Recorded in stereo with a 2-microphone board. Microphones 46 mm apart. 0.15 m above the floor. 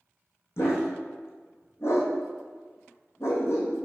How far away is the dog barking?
About 2.5 m.